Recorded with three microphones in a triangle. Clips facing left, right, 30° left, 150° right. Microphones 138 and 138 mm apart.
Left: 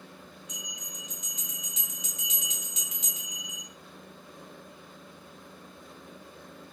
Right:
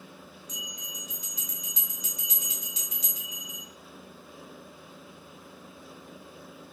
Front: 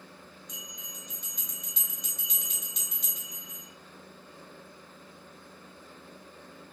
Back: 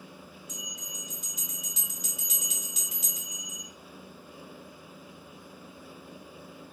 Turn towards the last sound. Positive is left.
turn(degrees=-70)